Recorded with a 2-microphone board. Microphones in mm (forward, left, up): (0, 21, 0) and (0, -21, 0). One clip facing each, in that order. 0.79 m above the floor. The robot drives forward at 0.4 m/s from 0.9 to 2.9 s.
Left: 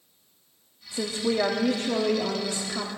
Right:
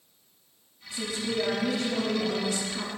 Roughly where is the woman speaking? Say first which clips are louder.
Left 4 dB; left.